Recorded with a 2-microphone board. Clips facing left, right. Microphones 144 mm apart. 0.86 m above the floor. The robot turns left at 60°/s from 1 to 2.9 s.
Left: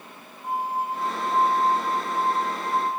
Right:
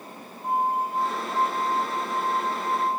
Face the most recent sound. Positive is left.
turn(degrees=65)